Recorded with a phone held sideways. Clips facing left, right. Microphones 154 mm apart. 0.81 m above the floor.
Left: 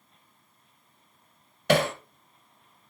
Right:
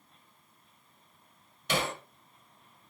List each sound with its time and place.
1.7 s hammering: 65° left (ahead or behind), 1.7 m